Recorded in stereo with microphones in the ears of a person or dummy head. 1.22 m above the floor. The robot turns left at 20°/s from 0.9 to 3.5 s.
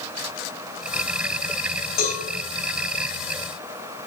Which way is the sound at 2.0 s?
80° left.